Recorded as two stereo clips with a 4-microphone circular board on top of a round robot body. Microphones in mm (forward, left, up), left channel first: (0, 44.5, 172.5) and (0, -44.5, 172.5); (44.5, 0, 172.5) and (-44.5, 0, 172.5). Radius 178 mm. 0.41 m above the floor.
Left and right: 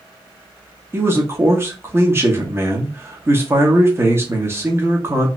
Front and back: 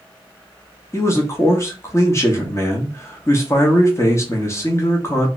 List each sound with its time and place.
0.9 s a man speaking: 40° right, 1.0 m